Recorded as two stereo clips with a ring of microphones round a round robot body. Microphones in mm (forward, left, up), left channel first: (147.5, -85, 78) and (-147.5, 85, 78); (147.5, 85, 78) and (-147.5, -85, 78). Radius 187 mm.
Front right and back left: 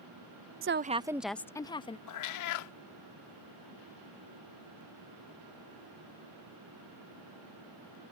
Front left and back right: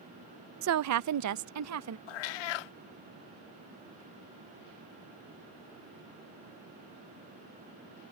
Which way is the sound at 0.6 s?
Straight behind.